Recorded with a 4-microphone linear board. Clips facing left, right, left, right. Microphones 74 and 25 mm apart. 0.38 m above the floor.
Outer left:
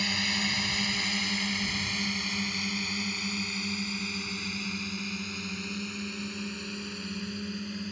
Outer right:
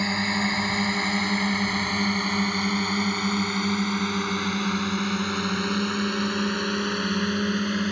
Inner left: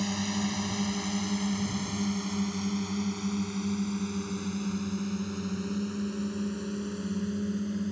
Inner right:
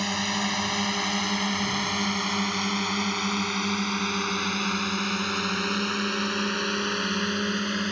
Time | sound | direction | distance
0.0 | a drone | 35° right (ahead or behind) | ?